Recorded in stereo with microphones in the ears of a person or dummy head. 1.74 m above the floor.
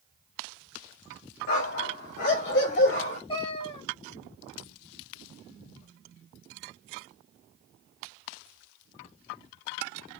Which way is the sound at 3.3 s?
35° left (ahead or behind).